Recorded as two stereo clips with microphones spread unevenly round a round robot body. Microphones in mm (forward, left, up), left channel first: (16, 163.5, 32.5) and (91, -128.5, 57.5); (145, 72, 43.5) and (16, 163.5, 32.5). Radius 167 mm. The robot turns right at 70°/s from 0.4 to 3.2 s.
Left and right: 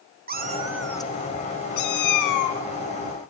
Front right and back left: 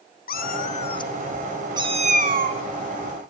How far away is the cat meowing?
About 0.9 m.